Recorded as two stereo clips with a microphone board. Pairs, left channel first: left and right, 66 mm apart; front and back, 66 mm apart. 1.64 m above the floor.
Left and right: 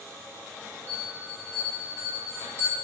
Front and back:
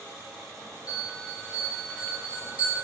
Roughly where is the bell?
Behind right.